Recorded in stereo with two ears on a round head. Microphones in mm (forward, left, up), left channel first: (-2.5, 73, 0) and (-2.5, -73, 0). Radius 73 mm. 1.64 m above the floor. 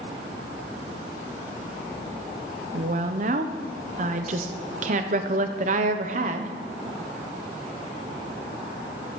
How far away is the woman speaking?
About 1.0 m.